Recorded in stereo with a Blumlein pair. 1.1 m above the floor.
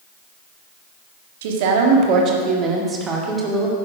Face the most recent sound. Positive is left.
turn(degrees=-5)